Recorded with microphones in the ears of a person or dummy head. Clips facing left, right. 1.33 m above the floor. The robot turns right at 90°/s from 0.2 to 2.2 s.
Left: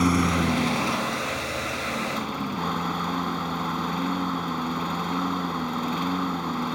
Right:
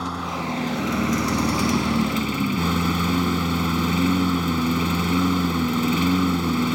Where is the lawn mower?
140° left; by 6.8 s 40° right.